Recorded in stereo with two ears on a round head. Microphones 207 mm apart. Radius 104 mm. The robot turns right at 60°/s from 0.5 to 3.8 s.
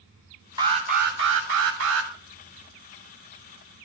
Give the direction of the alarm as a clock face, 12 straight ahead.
5 o'clock.